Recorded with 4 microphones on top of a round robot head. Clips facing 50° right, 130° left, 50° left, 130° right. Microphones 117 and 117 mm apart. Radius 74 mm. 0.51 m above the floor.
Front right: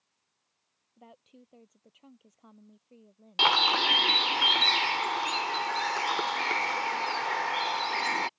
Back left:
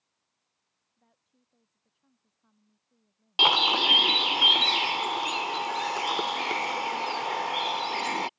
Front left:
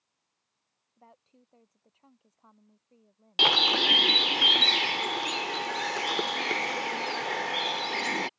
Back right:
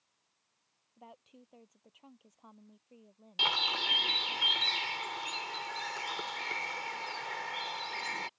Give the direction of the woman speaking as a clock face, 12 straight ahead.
2 o'clock.